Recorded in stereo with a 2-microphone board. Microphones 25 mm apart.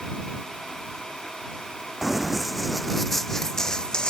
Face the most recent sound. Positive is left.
turn(degrees=35)  # may be behind; listen again after turning